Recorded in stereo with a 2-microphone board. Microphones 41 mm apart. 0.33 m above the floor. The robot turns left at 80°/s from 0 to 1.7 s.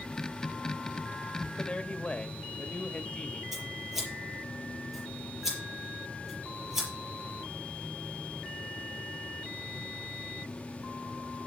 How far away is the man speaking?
About 1.0 m.